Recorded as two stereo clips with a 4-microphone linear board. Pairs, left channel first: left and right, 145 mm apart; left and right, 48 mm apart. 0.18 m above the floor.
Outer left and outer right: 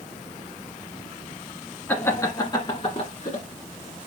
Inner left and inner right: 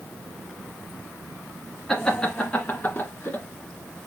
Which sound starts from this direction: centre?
Laughter, at 1.9 s.